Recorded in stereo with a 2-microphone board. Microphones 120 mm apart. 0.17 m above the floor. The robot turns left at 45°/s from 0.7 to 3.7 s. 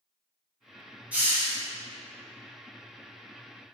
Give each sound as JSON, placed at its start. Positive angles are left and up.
{"t": 1.1, "sound": "a hiss", "side_deg": -10, "distance_m": 1.1}